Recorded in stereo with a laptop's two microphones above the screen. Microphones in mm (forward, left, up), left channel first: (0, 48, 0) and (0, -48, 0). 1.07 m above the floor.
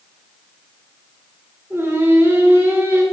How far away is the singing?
About 1.3 m.